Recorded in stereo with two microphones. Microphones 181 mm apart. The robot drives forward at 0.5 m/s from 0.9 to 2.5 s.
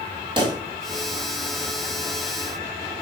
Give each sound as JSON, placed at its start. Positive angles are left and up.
{"t": 0.4, "sound": "a pop", "side_deg": -25, "distance_m": 1.3}